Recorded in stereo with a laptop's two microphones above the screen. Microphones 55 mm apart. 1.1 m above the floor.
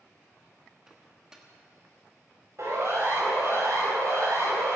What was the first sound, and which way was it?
A microwave, 10° right (ahead or behind).